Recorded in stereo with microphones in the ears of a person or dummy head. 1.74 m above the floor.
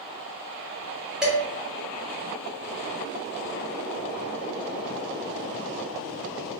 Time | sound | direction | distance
1.2 | dishes clattering | 5° right (ahead or behind) | 1.1 m